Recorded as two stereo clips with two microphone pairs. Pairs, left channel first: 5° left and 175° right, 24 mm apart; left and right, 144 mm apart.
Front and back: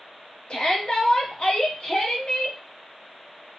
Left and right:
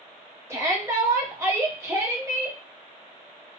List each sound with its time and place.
0.5 s a shout: 20° right, 0.9 m